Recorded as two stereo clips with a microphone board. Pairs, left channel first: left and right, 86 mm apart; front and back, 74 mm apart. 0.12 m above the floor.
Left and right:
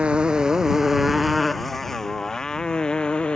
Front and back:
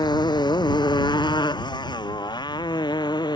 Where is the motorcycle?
10° right; by 3.4 s 15° left.